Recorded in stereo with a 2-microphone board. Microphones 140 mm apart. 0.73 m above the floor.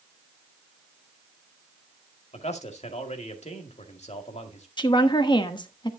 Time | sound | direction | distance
2.3 | a man speaking | 55° left (ahead or behind) | 2.0 m
4.8 | a woman speaking | 35° left (ahead or behind) | 1.1 m